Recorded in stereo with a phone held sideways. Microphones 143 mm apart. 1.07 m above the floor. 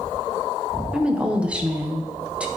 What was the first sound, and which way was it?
A woman speaking, 10° right (ahead or behind).